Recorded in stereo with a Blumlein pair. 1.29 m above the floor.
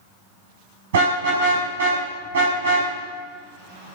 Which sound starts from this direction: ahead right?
A car horn, at 0.9 s.